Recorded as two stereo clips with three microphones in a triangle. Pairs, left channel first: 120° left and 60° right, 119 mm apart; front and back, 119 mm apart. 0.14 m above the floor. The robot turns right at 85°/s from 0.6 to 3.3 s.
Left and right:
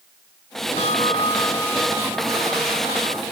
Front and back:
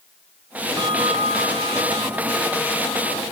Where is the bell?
125° left; by 3.2 s 25° right.